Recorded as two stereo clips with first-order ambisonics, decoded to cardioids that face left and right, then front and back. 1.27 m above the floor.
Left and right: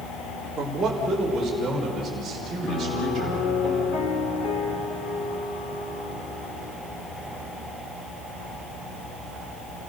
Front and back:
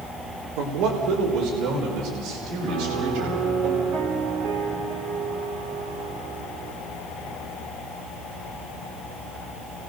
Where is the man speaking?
175° right, 3 m.